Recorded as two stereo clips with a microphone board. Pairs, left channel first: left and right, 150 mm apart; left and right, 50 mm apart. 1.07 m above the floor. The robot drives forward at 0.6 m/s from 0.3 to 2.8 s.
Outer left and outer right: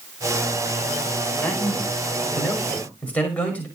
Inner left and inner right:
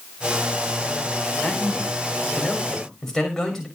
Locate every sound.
1.4 s a man speaking: 10° left (ahead or behind), 5 m